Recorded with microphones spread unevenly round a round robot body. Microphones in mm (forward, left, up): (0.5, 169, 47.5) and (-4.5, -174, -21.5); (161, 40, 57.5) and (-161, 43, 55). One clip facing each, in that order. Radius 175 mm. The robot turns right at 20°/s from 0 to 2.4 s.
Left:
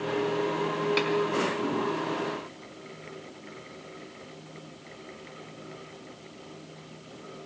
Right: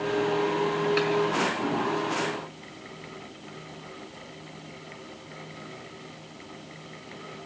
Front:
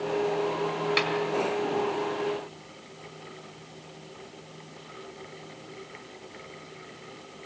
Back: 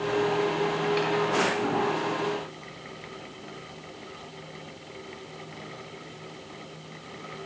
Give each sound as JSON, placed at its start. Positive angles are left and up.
{"t": 1.0, "sound": "a snare drum", "azimuth_deg": 5, "distance_m": 4.0}